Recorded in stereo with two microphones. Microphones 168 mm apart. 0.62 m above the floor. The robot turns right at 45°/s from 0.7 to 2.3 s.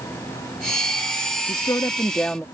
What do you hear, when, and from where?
1.5 s a woman speaking: 130° left; by 2.5 s 170° left